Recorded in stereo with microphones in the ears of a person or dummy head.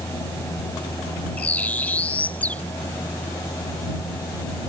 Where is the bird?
5° left (ahead or behind).